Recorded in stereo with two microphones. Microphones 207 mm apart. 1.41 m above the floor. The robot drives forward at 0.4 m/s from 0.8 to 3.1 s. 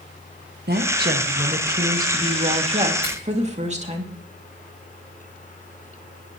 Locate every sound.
0.7 s a woman speaking: 50° right (ahead or behind), 1.6 m; by 4.0 s 35° right (ahead or behind), 2.5 m
3.0 s a finger snap: 25° right (ahead or behind), 6 m